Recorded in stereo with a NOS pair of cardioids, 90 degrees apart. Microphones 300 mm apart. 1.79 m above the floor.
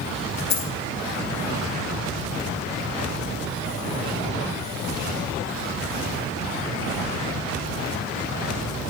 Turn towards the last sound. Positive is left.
turn(degrees=65)